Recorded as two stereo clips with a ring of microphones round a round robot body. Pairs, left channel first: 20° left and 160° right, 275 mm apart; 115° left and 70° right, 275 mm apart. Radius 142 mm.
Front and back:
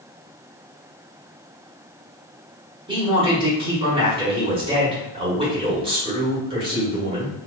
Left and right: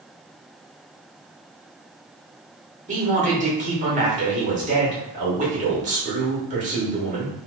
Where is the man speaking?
100° right, 1.2 m.